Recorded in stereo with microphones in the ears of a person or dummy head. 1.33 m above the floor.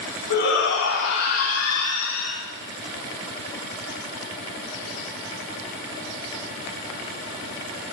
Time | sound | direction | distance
0.3 | a shout | 60° left (ahead or behind) | 3.5 m